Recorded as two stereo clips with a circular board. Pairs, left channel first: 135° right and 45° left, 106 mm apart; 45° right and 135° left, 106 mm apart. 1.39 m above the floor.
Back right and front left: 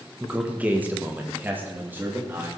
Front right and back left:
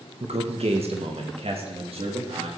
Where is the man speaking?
120° left, 1.5 m; by 2.5 s 115° left, 3 m.